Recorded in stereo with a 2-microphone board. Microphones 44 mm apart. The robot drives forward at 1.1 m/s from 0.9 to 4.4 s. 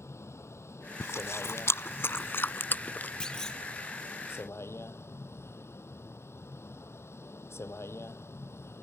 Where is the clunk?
15° left (ahead or behind).